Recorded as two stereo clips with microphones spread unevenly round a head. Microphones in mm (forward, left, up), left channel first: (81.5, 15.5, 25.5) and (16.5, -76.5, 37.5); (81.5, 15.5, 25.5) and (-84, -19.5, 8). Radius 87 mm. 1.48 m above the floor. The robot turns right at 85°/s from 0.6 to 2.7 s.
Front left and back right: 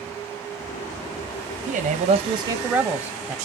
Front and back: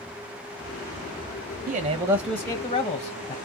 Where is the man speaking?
145° right, 0.6 m; by 3.4 s 55° right, 0.6 m.